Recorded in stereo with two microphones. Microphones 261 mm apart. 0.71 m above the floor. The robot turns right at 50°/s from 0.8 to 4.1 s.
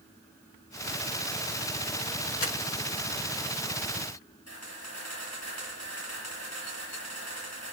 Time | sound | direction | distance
2.4 | crumpling | 65° left (ahead or behind) | 0.8 m
4.5 | a camera shutter | 90° left | 8.5 m